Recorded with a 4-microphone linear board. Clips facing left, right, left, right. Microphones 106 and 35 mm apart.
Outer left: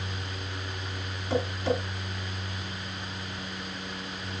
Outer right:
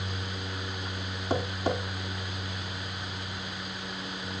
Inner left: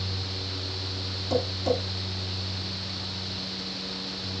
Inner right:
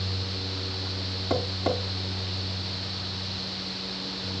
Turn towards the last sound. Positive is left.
turn(degrees=-40)  # may be behind; listen again after turning